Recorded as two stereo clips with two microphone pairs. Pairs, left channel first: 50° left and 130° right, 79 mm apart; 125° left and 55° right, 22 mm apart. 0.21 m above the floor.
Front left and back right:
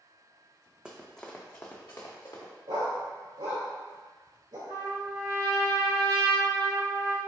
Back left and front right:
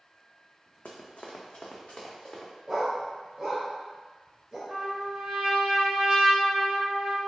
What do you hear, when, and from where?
0.8 s running footsteps: 155° left, 0.7 m; by 2.5 s 85° left, 1.4 m
2.7 s a dog barking: 115° right, 1.5 m
4.7 s a trumpet: 110° right, 1.9 m